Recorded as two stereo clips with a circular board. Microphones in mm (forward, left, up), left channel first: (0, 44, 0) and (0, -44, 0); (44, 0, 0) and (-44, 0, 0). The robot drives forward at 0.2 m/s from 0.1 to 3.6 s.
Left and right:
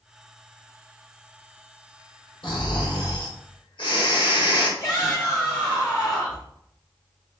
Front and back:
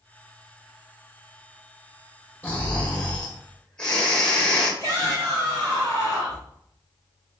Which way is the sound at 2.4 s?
70° left.